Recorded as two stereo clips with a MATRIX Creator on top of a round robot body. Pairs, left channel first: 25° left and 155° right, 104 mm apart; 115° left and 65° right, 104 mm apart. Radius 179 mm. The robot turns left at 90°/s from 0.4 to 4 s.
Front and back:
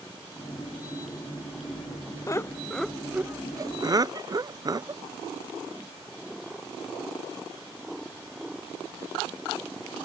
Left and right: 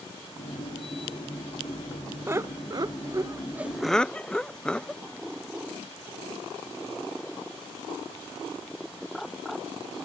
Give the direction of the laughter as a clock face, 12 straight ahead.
12 o'clock.